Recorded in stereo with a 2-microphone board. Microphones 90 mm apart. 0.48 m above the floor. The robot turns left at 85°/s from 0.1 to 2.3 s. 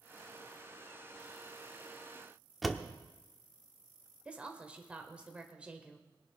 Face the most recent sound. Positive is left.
turn(degrees=-15)  # may be behind; listen again after turning